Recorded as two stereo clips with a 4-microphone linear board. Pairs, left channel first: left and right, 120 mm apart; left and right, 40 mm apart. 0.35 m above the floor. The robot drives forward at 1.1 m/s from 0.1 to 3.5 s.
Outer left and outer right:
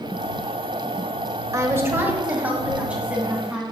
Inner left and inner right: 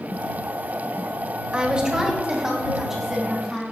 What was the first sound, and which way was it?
A woman speaking, 25° right (ahead or behind).